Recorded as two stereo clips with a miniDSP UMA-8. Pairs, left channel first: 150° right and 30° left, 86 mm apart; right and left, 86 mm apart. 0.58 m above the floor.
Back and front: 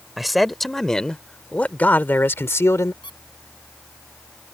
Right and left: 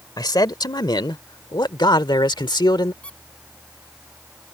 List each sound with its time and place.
0.2 s a man speaking: 60° right; by 2.9 s 105° right
3.0 s a squeak: 165° right